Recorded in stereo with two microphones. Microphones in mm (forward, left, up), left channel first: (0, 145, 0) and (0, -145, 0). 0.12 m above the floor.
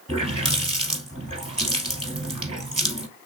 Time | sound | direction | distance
0.1 | a running tap | 15° right (ahead or behind) | 1.8 m